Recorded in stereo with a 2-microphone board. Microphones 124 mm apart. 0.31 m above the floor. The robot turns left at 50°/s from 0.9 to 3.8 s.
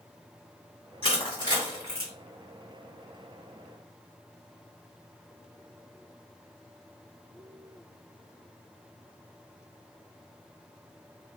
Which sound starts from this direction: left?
Crushing, at 1.0 s.